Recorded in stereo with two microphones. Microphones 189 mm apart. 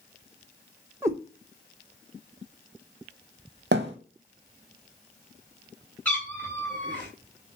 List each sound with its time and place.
1.0 s a cat meowing: 15° right (ahead or behind), 0.9 m
3.7 s a thud: 70° right (ahead or behind), 0.8 m
6.0 s a cat meowing: 10° left (ahead or behind), 1.6 m